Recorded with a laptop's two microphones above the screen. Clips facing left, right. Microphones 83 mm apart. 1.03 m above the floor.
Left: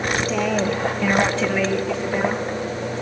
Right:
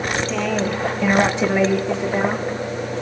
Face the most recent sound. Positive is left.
turn(degrees=-20)  # may be behind; listen again after turning